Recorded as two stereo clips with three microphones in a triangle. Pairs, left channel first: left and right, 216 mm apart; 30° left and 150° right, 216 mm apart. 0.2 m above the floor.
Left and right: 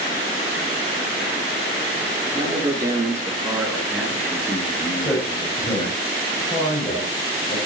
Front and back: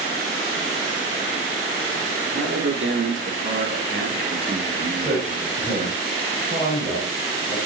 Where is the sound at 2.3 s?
160° right, 3 m; by 6.0 s 150° left, 2 m.